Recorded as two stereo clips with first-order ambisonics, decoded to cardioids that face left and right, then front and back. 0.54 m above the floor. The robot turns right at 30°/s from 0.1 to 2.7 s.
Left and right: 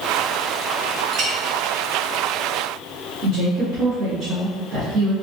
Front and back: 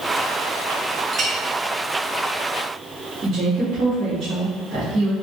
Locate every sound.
1.1 s a clink: 125° right, 0.7 m; by 1.3 s 120° right, 0.7 m
3.2 s a woman speaking: 110° right, 1.5 m